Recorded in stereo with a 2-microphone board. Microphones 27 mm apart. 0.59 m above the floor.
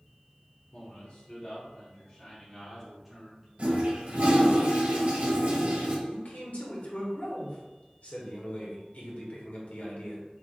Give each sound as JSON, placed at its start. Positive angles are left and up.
{"t": 0.7, "sound": "a man speaking", "side_deg": 55, "distance_m": 1.5}
{"t": 3.6, "sound": "a toilet flushing", "side_deg": -50, "distance_m": 1.4}
{"t": 6.1, "sound": "a man speaking", "side_deg": 65, "distance_m": 1.4}